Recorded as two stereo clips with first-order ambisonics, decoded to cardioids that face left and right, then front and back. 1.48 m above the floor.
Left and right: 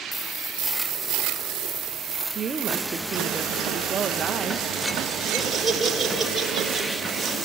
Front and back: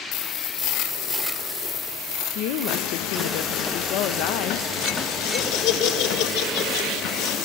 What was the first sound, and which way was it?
A woman speaking, 20° right.